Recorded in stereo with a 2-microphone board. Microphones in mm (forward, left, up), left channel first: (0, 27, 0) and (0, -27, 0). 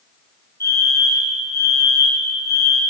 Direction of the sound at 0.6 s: 65° left (ahead or behind).